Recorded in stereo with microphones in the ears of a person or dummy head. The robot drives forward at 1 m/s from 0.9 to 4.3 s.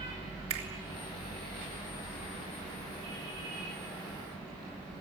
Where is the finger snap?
35° right (ahead or behind), 3.5 m.